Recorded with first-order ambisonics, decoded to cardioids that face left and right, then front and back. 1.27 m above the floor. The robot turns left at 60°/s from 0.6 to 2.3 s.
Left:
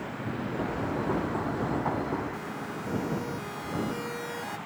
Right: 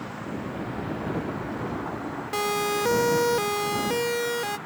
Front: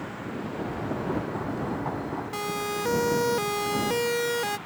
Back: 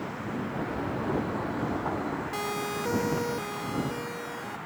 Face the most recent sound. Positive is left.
turn(degrees=-35)